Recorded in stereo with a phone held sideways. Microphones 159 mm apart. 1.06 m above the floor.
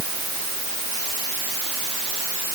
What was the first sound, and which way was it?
Only background noise.